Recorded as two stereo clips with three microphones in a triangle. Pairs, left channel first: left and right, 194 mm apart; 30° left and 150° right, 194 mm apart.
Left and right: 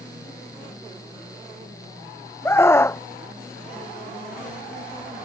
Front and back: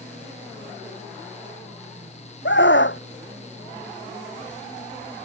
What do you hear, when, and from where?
2.5 s a scream: 10° left